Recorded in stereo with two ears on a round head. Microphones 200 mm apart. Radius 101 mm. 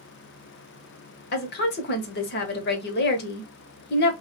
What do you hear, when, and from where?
1.3 s a woman speaking: 45° left (ahead or behind), 0.9 m